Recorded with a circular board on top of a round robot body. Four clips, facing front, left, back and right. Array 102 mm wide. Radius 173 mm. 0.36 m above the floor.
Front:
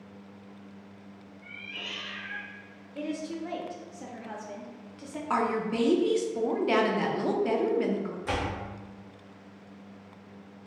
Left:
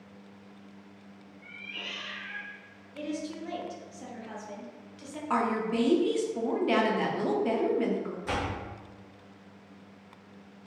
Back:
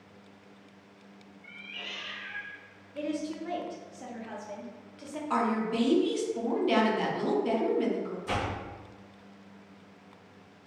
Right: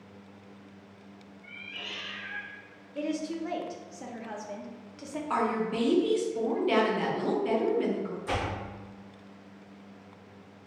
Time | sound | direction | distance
1.4 | a cat meowing | 55° left | 1.1 m
3.0 | a woman speaking | 85° right | 0.8 m
5.3 | a woman speaking | 25° left | 1.1 m
8.2 | a door slam | 30° left | 1.6 m